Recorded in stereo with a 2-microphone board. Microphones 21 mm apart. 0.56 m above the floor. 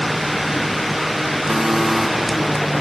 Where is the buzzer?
45° right (ahead or behind), 4 m.